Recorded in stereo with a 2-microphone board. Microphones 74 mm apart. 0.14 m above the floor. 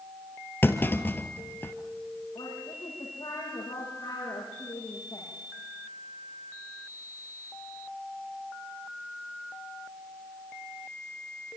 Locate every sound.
0.6 s a clunk: 30° left (ahead or behind), 2.0 m
2.4 s a woman speaking: 65° left (ahead or behind), 8 m